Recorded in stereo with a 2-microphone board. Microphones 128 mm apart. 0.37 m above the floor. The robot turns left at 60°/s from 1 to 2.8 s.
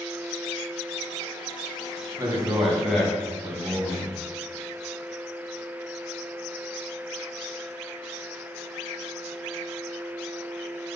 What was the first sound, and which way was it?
A man speaking, 145° right.